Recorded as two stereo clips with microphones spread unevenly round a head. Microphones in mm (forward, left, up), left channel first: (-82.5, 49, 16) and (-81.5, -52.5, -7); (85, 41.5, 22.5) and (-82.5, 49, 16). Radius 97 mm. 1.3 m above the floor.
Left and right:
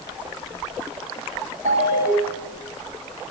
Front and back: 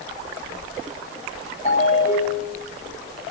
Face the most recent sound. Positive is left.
turn(degrees=-60)